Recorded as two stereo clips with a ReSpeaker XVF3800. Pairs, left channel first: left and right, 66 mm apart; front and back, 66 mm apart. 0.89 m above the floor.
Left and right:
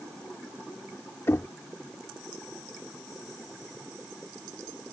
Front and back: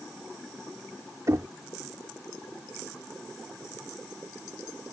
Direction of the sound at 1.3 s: 140° left.